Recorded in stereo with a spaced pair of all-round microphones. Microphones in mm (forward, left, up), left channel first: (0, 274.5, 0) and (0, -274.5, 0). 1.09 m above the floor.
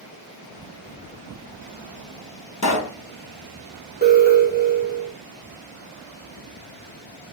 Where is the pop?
30° left (ahead or behind), 0.7 m.